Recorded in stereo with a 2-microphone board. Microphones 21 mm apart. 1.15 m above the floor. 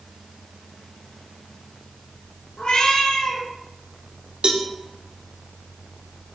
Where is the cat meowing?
65° left (ahead or behind), 4 m.